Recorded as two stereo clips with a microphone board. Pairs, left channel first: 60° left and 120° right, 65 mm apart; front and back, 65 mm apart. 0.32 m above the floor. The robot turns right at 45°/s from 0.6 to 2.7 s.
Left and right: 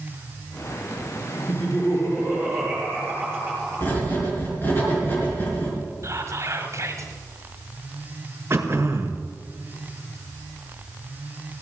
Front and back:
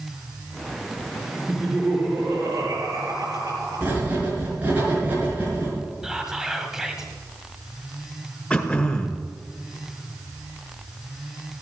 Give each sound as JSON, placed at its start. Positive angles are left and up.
{"t": 1.5, "sound": "laughter", "azimuth_deg": 80, "distance_m": 5.0}
{"t": 3.8, "sound": "writing", "azimuth_deg": 115, "distance_m": 5.0}
{"t": 6.0, "sound": "whispering", "azimuth_deg": -95, "distance_m": 1.6}
{"t": 8.5, "sound": "throat clearing", "azimuth_deg": -75, "distance_m": 1.5}